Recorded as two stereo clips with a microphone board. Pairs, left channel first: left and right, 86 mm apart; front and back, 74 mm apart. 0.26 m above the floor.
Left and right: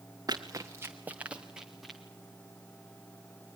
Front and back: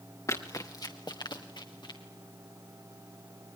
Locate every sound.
0.3 s running footsteps: 50° right, 1.6 m; by 2.0 s straight ahead, 2.5 m